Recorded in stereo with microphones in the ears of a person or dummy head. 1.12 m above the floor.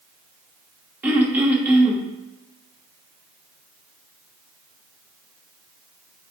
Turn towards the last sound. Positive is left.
turn(degrees=-10)  # may be behind; listen again after turning